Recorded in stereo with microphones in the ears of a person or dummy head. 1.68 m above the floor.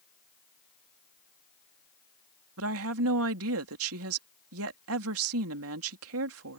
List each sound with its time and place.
2.6 s a woman speaking: 80° right